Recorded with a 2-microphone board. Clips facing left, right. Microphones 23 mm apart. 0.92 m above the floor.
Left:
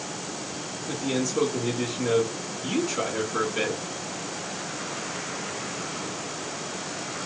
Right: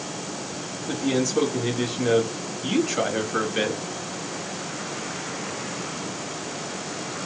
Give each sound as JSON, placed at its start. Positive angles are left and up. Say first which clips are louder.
{"t": 0.9, "sound": "a man speaking", "louder": "right 4 dB", "side_deg": -40, "distance_m": 1.8}